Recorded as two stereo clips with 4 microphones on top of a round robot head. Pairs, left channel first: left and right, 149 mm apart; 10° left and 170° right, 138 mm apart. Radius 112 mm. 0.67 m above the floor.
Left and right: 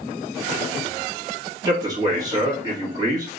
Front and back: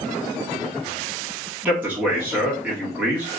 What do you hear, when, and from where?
1.6 s a man speaking: 105° right, 1.2 m